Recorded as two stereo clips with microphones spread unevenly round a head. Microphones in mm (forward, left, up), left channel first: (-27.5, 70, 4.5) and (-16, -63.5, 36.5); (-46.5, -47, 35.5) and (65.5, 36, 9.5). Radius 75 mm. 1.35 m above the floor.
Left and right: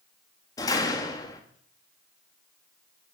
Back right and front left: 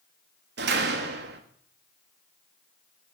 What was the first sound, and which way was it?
A door slam, 25° left.